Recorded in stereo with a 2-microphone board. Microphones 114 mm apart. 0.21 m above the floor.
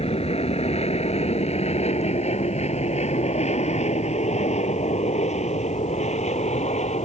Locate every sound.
0.0 s an aircraft: 60° left (ahead or behind); by 7.0 s 75° left (ahead or behind)